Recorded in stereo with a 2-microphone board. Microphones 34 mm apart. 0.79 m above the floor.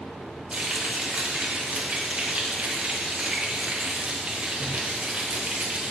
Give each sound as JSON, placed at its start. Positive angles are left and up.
{"t": 0.5, "sound": "frying", "side_deg": -40, "distance_m": 0.7}